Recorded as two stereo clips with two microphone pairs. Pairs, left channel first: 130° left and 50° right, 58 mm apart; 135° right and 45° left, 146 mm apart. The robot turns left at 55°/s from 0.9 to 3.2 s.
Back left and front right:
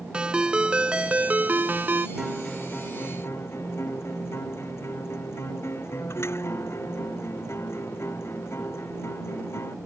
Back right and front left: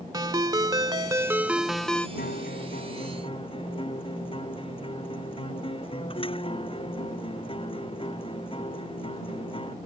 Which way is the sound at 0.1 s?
5° left.